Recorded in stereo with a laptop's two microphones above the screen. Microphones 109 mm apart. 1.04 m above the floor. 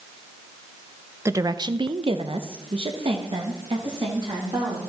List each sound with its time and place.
1.2 s a woman speaking: 25° right (ahead or behind), 0.6 m; by 4.8 s 45° right (ahead or behind), 2 m